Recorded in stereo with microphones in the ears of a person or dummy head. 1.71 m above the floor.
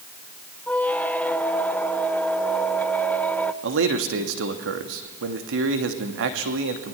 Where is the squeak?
5° left (ahead or behind), 1.0 m.